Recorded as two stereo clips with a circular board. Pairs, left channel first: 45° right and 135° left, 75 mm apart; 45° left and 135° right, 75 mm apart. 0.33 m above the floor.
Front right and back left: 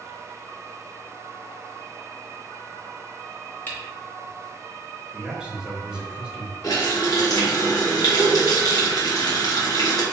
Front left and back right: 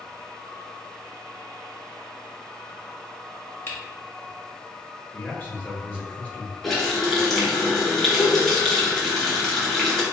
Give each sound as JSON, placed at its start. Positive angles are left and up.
{"t": 3.7, "sound": "a camera shutter", "azimuth_deg": 5, "distance_m": 1.1}
{"t": 5.1, "sound": "a man speaking", "azimuth_deg": 80, "distance_m": 1.1}
{"t": 6.6, "sound": "a running tap", "azimuth_deg": -40, "distance_m": 1.3}